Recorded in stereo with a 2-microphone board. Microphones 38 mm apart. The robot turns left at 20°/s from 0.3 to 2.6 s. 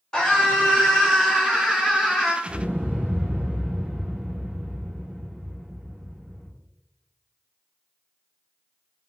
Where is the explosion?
30° right (ahead or behind), 0.9 m.